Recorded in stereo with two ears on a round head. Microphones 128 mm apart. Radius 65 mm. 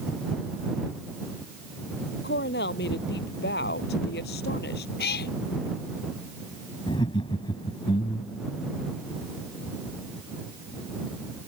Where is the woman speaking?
80° left; by 4.9 s 75° left (ahead or behind).